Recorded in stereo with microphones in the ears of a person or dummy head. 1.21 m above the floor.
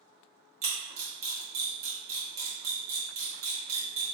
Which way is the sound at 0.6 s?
40° right (ahead or behind).